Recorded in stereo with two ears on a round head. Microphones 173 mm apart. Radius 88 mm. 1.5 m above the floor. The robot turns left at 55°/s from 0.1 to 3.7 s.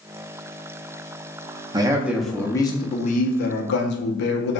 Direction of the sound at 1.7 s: 155° right.